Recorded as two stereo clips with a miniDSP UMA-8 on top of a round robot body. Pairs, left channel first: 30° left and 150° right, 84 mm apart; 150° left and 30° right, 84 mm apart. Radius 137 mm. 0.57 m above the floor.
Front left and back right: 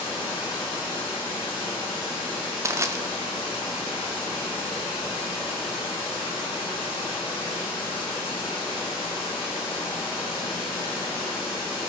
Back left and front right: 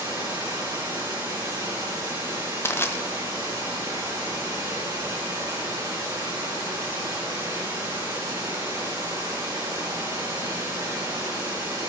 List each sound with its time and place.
0.0 s running water: 15° left, 6.5 m
2.6 s crushing: 175° right, 1.2 m